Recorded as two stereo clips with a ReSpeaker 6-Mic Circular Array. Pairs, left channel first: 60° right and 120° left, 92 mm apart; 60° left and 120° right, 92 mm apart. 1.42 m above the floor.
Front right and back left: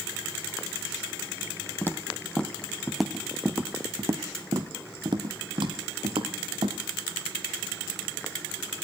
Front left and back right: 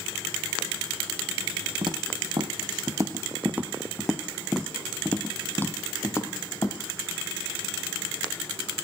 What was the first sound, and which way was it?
Footsteps, 120° right.